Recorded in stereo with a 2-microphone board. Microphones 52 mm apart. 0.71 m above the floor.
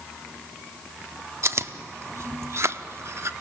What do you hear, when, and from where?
1.4 s chewing: 55° right (ahead or behind), 0.7 m